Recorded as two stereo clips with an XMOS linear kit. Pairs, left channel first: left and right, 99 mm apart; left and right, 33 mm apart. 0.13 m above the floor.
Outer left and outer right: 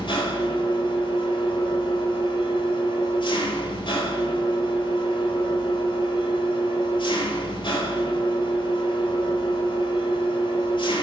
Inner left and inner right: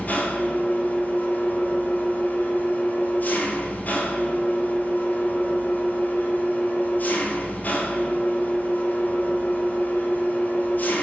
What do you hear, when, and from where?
0.0 s an engine running: 55° left (ahead or behind), 1.8 m